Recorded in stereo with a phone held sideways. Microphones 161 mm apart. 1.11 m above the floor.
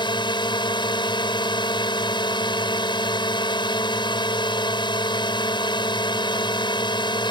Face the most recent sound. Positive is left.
turn(degrees=30)  # may be behind; listen again after turning